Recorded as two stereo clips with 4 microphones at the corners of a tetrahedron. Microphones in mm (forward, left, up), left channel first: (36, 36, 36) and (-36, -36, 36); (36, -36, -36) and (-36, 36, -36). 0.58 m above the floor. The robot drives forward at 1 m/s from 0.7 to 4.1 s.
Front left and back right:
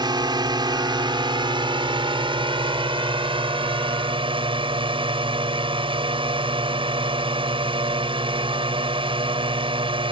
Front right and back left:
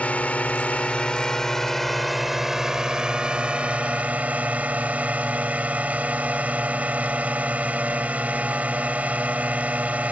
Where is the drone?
115° right; by 10.1 s 150° right.